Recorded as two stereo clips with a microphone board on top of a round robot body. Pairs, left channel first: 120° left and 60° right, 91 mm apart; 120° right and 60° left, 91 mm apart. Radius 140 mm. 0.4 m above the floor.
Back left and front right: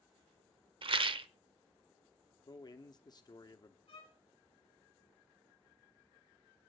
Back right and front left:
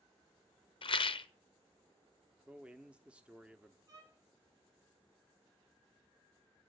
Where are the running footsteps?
No running footsteps in this recording.